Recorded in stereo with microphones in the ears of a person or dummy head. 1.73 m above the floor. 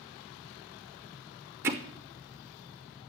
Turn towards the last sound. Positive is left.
turn(degrees=-15)  # may be behind; listen again after turning